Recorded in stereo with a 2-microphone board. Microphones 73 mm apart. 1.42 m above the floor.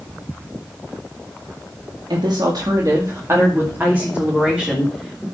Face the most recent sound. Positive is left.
turn(degrees=-5)  # may be behind; listen again after turning